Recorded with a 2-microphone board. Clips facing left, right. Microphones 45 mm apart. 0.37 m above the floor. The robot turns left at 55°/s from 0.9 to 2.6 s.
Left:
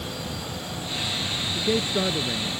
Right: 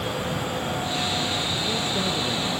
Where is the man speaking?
50° left; by 2.5 s 5° right.